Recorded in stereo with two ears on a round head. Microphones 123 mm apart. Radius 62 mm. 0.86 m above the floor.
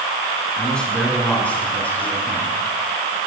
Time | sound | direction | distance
0.6 | a man speaking | 5° left (ahead or behind) | 9 m